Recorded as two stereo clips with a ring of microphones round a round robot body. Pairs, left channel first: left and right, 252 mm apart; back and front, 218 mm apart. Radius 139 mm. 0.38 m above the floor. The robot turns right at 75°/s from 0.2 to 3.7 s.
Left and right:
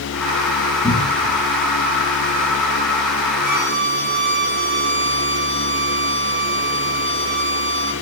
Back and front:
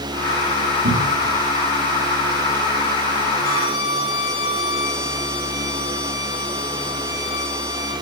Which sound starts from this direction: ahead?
A cupboard door, at 0.8 s.